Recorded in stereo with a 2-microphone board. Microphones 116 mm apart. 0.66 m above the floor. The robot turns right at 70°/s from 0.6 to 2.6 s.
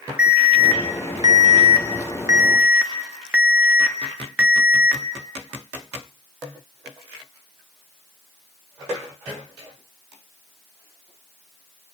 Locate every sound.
0.2 s an alarm: 165° right, 2 m; by 5.0 s 25° right, 2 m